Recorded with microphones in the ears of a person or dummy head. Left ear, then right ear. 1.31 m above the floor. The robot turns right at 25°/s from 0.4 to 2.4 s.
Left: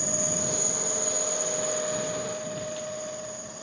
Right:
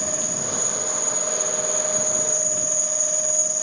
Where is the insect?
175° left; by 3.6 s 135° right.